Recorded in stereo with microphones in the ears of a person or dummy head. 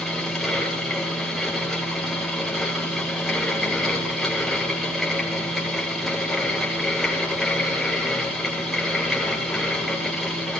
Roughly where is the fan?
Centre.